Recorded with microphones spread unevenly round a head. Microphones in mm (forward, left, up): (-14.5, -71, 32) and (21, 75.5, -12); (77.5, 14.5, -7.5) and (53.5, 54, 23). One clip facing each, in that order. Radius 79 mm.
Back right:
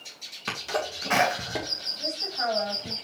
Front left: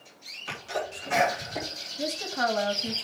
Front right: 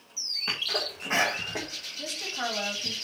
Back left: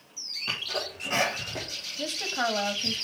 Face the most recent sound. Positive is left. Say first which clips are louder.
# front left 4 dB, back left 4 dB
turn(degrees=75)